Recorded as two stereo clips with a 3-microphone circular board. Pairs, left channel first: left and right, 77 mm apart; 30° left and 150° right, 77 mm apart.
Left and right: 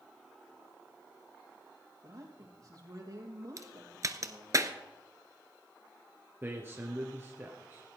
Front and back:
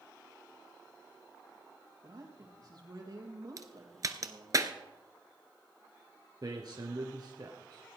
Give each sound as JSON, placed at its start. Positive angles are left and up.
{"t": 2.0, "sound": "a man speaking", "azimuth_deg": -125, "distance_m": 4.5}
{"t": 3.6, "sound": "a crack", "azimuth_deg": -125, "distance_m": 1.0}
{"t": 6.4, "sound": "a man speaking", "azimuth_deg": -145, "distance_m": 2.0}